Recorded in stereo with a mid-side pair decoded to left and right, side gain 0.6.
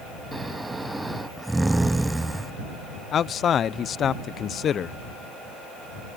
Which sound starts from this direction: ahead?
Snoring, at 0.3 s.